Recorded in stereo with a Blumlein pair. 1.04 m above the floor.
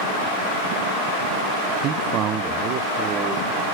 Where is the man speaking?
35° right, 0.6 m; by 3.6 s 25° right, 1.7 m.